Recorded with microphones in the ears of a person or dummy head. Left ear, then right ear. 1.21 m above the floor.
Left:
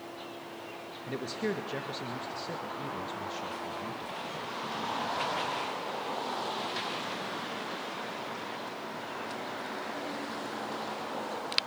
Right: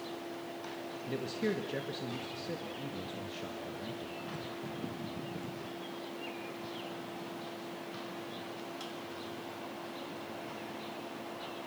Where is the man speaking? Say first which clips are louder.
Left 2 dB; 15° left (ahead or behind), 1.8 m.